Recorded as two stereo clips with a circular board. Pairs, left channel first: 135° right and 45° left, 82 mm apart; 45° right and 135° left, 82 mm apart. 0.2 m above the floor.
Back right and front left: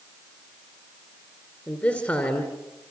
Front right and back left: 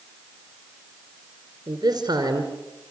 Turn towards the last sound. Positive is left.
turn(degrees=160)